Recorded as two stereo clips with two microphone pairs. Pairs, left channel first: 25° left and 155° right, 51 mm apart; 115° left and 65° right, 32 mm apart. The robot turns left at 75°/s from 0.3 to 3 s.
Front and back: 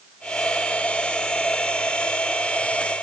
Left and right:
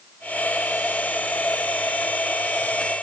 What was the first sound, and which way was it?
Only background noise.